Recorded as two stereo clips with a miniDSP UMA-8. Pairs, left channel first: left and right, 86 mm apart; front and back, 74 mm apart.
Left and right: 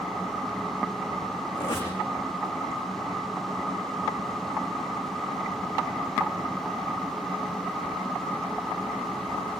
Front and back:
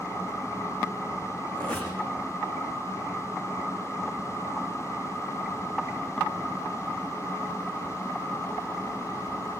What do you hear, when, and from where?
1.6 s a squeak: 75° left, 7.5 m